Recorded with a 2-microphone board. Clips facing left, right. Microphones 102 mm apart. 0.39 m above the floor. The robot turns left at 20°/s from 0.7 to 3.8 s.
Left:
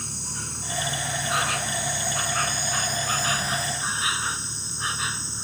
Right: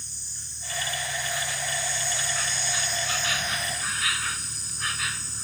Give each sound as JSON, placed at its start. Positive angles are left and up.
{"t": 0.0, "sound": "an insect", "azimuth_deg": 90}